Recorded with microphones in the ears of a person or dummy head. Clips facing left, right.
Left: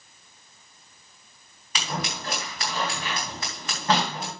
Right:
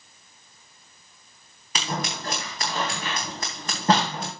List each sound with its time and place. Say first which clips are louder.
1.8 s scissors: right 2 dB; 30° right (ahead or behind), 3 m